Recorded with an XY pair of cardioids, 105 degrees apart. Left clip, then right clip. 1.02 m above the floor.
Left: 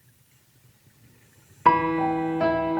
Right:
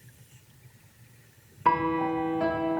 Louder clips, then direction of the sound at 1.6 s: Left 5 dB; 40° left.